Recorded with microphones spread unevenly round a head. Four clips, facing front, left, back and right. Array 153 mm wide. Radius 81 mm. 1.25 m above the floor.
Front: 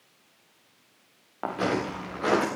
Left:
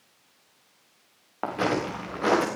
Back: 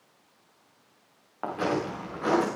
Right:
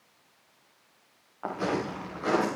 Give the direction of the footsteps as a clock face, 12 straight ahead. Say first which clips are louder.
Left 3 dB, front 1 dB; 10 o'clock.